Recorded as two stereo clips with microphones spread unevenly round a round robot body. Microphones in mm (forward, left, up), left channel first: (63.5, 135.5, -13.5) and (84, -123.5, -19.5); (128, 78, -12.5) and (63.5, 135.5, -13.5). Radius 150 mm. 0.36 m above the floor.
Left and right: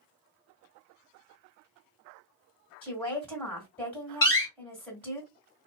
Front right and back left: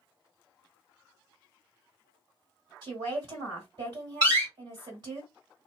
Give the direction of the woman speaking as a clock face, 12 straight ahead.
6 o'clock.